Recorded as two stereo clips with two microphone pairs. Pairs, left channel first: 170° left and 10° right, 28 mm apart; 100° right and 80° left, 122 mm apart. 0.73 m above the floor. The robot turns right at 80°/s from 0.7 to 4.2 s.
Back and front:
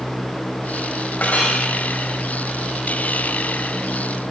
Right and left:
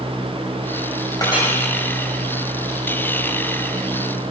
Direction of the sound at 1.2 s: 160° right.